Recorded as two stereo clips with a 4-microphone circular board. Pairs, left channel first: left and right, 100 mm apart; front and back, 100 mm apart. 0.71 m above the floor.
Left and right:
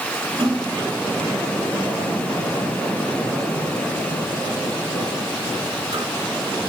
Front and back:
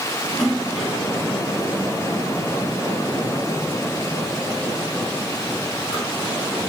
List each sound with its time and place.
0.4 s a splash: 80° right, 1.3 m